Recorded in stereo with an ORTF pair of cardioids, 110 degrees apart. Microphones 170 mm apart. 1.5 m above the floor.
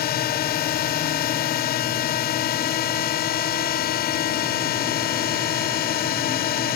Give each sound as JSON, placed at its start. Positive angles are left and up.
{"t": 0.0, "sound": "a drone", "azimuth_deg": 65}